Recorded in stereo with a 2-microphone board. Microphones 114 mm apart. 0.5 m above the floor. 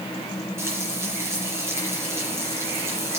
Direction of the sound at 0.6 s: 20° right (ahead or behind).